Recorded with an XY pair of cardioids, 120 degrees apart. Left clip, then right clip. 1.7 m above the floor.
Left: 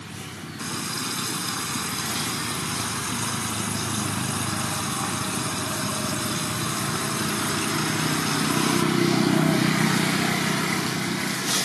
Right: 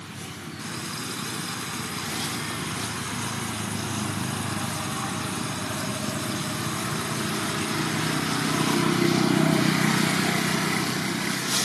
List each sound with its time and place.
0.6 s a running tap: 30° left